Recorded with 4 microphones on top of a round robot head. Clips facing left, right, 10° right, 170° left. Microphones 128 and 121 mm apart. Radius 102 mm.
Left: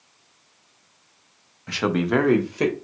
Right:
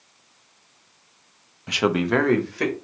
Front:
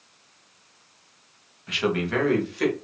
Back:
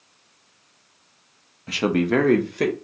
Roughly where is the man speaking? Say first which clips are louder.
Right 1 dB, back 5 dB; behind right.